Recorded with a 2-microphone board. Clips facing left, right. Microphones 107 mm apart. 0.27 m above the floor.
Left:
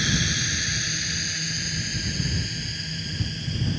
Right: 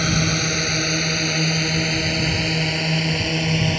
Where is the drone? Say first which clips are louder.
Right 6 dB; 60° right (ahead or behind); by 3.8 s 75° right (ahead or behind).